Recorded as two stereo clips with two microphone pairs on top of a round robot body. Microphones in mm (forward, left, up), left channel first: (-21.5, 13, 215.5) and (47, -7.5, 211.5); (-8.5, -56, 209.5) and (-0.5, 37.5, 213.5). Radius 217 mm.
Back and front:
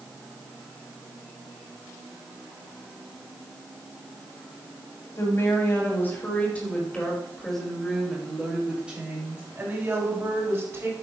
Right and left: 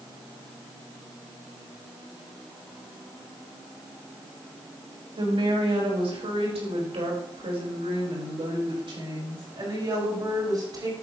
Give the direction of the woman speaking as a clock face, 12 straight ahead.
8 o'clock.